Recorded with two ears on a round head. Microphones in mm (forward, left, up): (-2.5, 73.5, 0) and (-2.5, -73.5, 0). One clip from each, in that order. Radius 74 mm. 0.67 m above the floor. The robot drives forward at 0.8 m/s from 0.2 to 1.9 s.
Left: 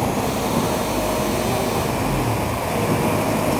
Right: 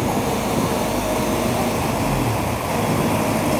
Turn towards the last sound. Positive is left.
turn(degrees=0)  # may be behind; listen again after turning